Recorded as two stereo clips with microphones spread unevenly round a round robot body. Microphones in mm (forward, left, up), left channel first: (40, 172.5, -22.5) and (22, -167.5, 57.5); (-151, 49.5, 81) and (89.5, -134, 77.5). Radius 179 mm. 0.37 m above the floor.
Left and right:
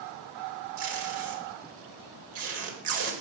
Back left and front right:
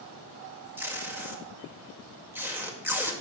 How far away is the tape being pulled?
About 2 m.